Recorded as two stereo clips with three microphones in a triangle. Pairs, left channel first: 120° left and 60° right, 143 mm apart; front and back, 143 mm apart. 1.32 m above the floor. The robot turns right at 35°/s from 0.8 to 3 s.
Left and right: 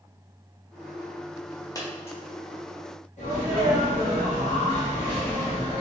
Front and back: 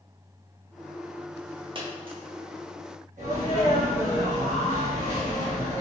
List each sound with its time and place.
1.8 s a dropped coin: 170° left, 0.7 m; by 2.2 s 175° right, 0.7 m
3.2 s a sneeze: 150° left, 1.6 m